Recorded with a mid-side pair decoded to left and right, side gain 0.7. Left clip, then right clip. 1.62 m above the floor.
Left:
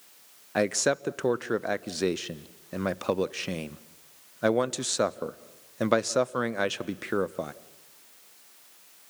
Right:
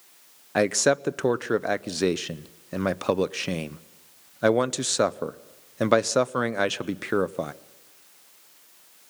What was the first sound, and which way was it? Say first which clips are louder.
A man speaking: right 4 dB; 15° right.